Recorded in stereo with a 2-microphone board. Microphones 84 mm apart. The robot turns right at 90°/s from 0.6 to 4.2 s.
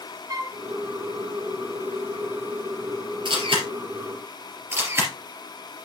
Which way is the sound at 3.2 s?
65° right (ahead or behind).